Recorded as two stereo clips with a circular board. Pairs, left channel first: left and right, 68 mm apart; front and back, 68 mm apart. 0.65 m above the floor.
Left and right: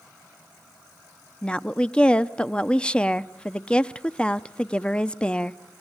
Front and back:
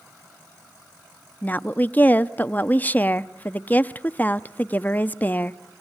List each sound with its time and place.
1.4 s a woman speaking: 30° left, 0.6 m